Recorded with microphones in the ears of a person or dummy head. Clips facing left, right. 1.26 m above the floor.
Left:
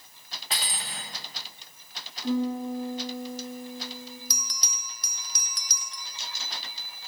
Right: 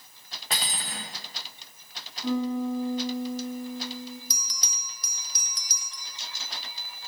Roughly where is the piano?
Right.